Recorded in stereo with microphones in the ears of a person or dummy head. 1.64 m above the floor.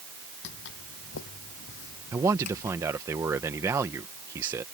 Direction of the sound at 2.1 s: 15° right (ahead or behind).